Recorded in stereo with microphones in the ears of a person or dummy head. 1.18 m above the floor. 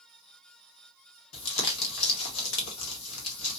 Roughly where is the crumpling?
Left.